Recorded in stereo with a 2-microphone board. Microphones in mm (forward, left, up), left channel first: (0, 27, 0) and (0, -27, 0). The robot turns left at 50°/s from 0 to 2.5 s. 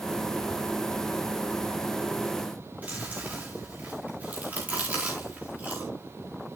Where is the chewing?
25° right (ahead or behind), 4 m.